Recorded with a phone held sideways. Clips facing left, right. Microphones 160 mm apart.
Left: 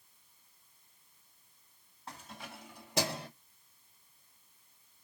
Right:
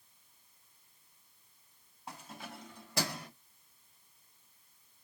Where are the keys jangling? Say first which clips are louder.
Right 1 dB; 15° right (ahead or behind), 1.3 m; by 3.3 s 30° left (ahead or behind), 1.1 m.